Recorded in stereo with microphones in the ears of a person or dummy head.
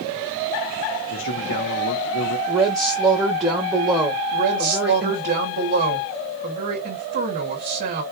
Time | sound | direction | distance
1.1 | a man speaking | 55° left (ahead or behind) | 1.0 m
2.5 | a woman speaking | 15° right (ahead or behind) | 1.3 m
4.3 | a woman speaking | 45° right (ahead or behind) | 2.5 m